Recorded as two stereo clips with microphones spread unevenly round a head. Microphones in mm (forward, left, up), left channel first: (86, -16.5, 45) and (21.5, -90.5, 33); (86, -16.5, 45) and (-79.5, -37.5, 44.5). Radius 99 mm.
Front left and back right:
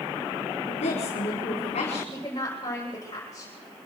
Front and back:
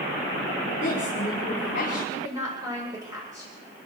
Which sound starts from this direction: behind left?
A woman speaking, at 2.1 s.